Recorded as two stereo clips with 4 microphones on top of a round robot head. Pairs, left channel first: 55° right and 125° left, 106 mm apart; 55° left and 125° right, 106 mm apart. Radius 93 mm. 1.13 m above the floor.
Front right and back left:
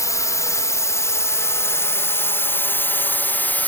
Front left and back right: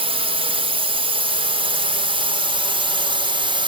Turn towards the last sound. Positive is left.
turn(degrees=-125)